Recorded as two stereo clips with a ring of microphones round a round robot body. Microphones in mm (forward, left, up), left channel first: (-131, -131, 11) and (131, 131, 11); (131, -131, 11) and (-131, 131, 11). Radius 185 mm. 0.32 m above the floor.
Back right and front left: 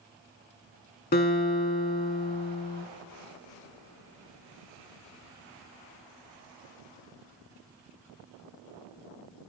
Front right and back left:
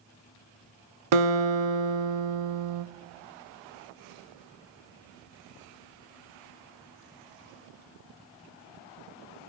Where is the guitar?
155° left, 0.5 m.